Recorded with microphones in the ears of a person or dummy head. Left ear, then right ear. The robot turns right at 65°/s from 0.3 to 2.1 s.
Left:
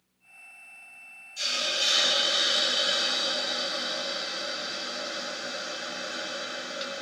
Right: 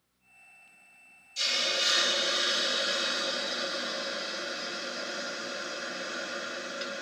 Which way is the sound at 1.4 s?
50° right.